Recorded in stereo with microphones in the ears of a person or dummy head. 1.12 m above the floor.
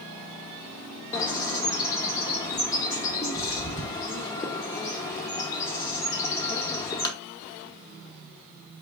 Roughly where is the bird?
Centre.